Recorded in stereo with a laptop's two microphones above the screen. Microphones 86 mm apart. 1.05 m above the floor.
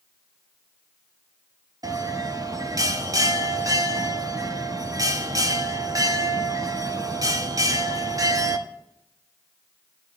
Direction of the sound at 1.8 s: 40° right (ahead or behind).